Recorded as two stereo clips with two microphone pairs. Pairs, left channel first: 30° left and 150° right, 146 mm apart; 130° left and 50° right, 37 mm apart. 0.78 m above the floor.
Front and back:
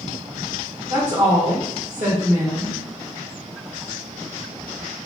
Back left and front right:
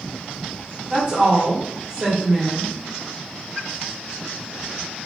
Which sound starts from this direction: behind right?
A woman speaking, at 0.9 s.